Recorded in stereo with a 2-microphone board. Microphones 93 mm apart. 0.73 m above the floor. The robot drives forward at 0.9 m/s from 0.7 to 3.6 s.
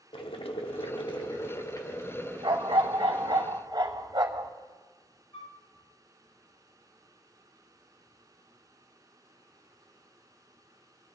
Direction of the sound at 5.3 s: 75° left (ahead or behind).